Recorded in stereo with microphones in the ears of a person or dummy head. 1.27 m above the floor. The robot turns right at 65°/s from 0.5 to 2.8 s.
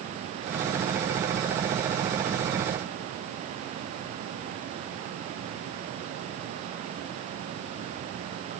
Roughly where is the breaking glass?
No breaking glass in this recording.